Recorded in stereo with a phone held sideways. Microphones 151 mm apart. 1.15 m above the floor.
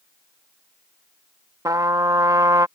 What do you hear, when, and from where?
1.6 s a trumpet: 25° right (ahead or behind)